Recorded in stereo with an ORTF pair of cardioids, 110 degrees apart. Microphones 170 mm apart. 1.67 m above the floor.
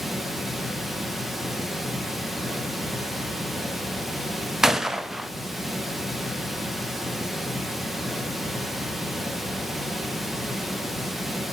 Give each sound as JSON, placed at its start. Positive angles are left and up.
{"t": 0.0, "sound": "running water", "azimuth_deg": 0, "distance_m": 1.5}
{"t": 4.6, "sound": "a gunshot", "azimuth_deg": -5, "distance_m": 0.6}